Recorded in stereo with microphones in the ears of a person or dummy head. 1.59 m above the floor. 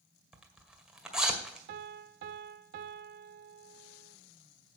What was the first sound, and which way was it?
A zipper, 5° right (ahead or behind).